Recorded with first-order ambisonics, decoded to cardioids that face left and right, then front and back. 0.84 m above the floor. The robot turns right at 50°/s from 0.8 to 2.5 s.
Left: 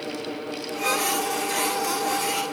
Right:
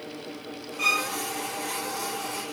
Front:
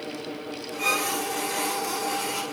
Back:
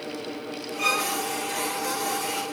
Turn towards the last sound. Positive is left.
turn(degrees=-45)